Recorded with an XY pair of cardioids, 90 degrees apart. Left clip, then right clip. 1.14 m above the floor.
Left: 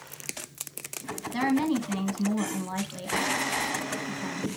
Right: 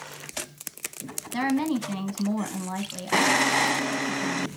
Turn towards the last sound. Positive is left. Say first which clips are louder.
# even
turn(degrees=-15)